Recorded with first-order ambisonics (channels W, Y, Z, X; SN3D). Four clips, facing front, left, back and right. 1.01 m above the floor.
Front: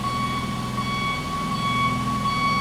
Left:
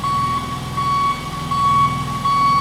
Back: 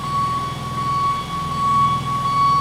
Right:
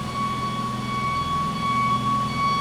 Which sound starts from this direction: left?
An engine running, at 0.0 s.